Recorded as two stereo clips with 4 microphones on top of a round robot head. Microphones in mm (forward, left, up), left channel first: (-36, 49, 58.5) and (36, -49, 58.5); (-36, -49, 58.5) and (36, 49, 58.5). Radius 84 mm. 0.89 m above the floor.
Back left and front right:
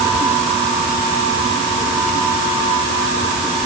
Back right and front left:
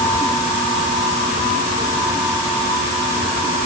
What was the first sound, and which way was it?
Only background noise.